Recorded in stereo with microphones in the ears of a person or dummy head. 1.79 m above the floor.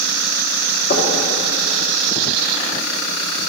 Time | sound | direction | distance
0.9 | knocking | 50° left (ahead or behind) | 3.5 m